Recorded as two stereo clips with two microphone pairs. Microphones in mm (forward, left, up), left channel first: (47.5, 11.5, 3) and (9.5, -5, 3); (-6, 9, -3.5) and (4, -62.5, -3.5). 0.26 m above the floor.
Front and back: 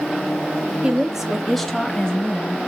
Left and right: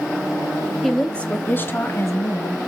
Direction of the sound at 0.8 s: 175° right.